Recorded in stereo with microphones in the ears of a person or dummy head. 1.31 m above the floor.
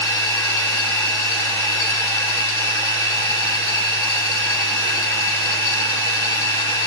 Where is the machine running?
10° left (ahead or behind), 5.5 m.